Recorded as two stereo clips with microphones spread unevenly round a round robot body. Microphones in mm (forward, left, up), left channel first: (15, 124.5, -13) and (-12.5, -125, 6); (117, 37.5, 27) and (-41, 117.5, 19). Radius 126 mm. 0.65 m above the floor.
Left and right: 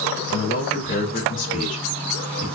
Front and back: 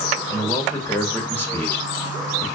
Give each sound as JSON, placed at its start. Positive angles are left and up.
{"t": 0.3, "sound": "a man speaking", "azimuth_deg": 50, "distance_m": 1.1}